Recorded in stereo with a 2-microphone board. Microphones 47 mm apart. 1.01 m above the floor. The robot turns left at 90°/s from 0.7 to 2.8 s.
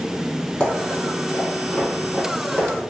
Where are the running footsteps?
25° left (ahead or behind), 1.6 m; by 2.7 s 45° right (ahead or behind), 1.4 m.